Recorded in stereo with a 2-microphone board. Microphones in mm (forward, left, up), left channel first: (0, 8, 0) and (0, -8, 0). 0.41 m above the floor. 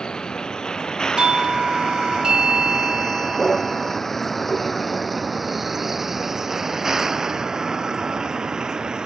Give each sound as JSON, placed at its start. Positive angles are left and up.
{"t": 0.0, "sound": "a vehicle", "side_deg": 50}
{"t": 1.2, "sound": "a doorbell", "side_deg": -55}